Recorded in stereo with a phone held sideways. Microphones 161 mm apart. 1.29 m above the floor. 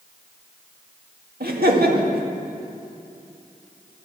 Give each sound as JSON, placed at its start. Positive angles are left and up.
{"t": 1.4, "sound": "laughter", "side_deg": -85, "distance_m": 1.8}